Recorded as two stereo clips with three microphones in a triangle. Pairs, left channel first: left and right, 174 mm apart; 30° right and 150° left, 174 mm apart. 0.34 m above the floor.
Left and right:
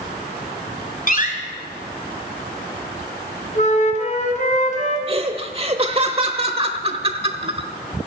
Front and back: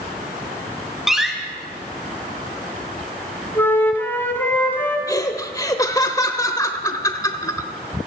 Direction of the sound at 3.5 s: 50° left.